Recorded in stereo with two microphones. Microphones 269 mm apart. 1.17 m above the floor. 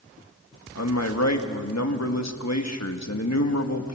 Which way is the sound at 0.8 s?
80° left.